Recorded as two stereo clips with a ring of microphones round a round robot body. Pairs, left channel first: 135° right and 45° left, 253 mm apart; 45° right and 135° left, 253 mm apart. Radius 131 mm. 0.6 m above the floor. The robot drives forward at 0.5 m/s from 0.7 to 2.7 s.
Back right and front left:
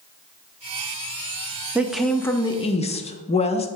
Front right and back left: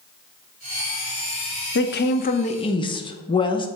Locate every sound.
1.8 s a woman speaking: 35° right, 0.8 m; by 3.7 s 95° right, 0.7 m